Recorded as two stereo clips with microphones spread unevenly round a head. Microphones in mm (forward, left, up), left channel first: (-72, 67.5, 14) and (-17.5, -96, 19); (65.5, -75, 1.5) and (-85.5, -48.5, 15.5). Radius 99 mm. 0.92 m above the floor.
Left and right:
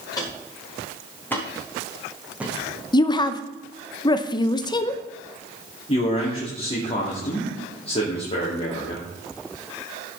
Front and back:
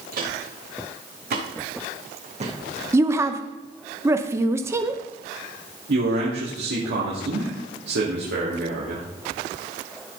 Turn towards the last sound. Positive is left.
turn(degrees=165)